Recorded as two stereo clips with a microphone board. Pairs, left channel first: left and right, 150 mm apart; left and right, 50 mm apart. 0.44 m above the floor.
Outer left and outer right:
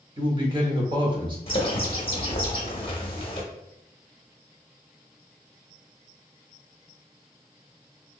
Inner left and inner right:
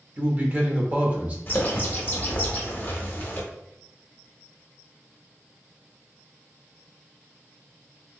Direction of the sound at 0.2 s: 30° right (ahead or behind).